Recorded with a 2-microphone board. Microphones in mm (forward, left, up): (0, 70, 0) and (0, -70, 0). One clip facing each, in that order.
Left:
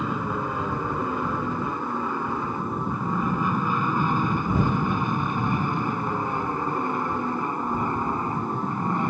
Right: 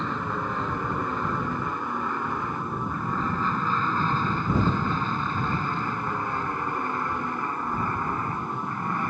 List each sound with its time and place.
0.0 s an aircraft: 10° left (ahead or behind); by 9.1 s 20° left (ahead or behind)